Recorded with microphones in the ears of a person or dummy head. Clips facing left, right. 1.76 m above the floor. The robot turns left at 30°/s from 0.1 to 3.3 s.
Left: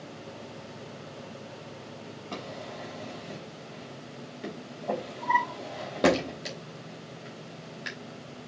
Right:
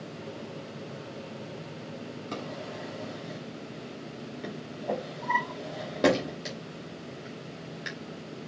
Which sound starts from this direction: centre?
A drawer, at 2.3 s.